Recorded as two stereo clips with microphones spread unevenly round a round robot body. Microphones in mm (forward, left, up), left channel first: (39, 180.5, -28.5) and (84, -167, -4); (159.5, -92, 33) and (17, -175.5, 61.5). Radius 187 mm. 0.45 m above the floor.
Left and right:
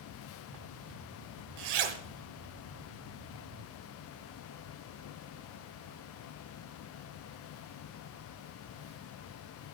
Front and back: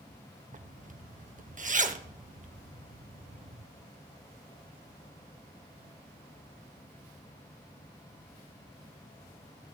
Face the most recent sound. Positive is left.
turn(degrees=-105)